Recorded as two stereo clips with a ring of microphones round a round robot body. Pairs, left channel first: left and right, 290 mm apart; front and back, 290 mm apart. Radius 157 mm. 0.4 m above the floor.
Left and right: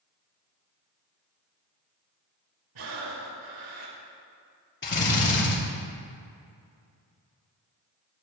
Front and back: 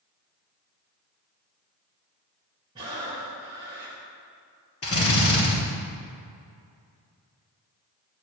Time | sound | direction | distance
2.8 | breathing | 105° right | 3.5 m
4.8 | a drill | 40° left | 5 m